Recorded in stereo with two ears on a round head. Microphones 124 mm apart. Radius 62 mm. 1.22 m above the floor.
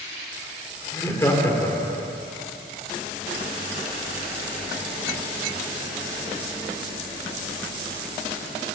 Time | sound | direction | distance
0.9 | laughter | 25° left (ahead or behind) | 4.5 m